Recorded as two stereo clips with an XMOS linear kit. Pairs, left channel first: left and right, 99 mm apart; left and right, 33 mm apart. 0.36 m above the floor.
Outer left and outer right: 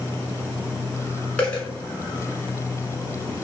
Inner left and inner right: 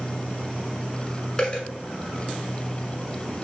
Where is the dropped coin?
15° left (ahead or behind), 1.2 m.